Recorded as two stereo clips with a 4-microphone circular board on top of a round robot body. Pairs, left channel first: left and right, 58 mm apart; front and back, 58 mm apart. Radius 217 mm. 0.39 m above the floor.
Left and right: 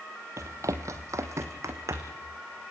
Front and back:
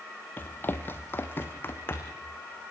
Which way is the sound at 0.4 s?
60° right.